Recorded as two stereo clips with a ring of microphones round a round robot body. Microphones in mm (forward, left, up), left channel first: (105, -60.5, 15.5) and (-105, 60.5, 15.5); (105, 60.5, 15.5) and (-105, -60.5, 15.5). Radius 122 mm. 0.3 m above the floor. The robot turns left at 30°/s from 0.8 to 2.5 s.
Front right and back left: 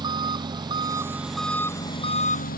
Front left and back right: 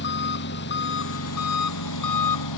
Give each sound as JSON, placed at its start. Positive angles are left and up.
{"t": 0.0, "sound": "an engine running", "azimuth_deg": 75}